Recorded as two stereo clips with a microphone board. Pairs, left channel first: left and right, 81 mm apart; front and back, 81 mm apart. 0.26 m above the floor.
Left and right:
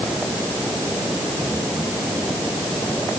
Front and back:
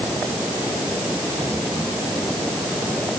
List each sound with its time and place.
Only background noise.